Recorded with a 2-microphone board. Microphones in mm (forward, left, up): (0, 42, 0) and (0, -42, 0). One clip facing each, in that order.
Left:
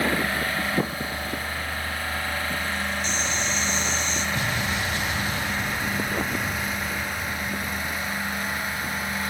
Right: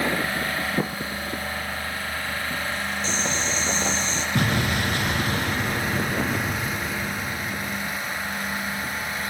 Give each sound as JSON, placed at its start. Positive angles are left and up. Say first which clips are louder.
{"t": 3.0, "sound": "boiling", "louder": "right 1 dB", "side_deg": -30, "distance_m": 4.0}
{"t": 4.3, "sound": "an explosion", "louder": "right 3 dB", "side_deg": -60, "distance_m": 1.8}